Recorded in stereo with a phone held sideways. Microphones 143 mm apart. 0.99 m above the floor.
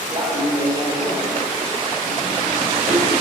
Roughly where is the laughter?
Right.